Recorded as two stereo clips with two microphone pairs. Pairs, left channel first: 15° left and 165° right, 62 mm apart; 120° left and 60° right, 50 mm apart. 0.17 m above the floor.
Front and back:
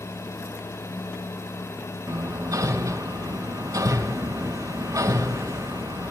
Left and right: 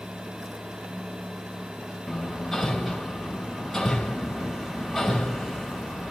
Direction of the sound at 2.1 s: 160° right.